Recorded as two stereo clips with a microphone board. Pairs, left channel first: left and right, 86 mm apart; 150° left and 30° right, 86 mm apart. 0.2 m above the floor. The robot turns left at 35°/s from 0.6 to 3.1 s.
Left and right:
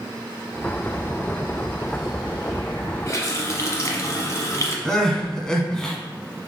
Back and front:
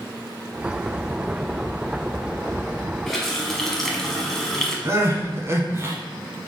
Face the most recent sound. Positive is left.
turn(degrees=10)